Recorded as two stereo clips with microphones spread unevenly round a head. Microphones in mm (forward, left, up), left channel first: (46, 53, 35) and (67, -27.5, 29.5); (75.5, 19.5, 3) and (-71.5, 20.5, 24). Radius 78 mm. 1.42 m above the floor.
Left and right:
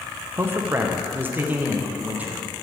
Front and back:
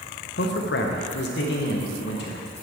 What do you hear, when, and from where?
0.4 s a man speaking: 15° right, 1.0 m; by 2.4 s 5° right, 2 m